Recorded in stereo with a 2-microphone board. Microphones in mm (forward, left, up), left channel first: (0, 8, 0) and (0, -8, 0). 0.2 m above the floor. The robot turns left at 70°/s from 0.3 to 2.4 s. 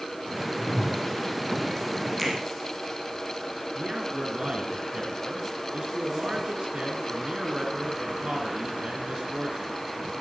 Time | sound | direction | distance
0.6 | a whoosh | 80° left | 2.5 m
2.2 | a finger snap | 10° right (ahead or behind) | 5 m
3.8 | a man speaking | 65° right (ahead or behind) | 3 m